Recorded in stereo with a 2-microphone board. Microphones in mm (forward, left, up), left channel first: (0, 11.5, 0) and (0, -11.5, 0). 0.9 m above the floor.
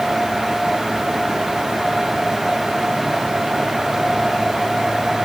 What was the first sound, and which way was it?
Only background noise.